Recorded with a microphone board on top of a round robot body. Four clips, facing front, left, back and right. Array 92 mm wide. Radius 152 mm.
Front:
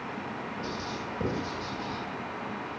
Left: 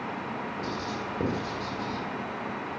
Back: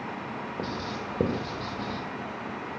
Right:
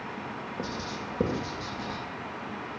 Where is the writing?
155° right, 3 m.